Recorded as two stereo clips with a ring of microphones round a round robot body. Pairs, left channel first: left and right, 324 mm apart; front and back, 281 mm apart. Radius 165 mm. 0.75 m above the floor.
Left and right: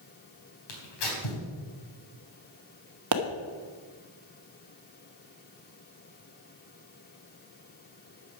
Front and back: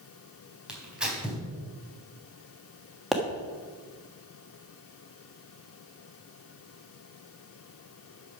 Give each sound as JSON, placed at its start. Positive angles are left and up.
{"t": 0.7, "sound": "tearing paper", "azimuth_deg": 95, "distance_m": 4.0}
{"t": 3.1, "sound": "a pop", "azimuth_deg": -90, "distance_m": 1.3}